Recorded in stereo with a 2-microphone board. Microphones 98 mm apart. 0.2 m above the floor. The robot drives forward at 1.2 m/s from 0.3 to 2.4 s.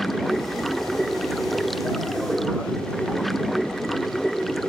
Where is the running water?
Centre (ahead or behind).